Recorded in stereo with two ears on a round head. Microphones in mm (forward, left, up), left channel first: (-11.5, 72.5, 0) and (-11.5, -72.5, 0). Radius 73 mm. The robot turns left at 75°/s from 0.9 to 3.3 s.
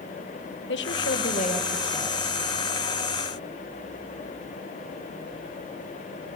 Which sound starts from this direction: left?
A woman speaking, at 0.7 s.